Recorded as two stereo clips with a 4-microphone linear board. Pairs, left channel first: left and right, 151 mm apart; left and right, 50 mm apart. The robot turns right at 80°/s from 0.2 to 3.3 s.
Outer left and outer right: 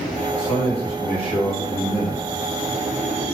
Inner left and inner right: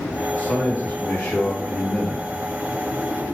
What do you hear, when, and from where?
0.4 s a man speaking: 40° left, 1.4 m; by 2.2 s 170° right, 1.4 m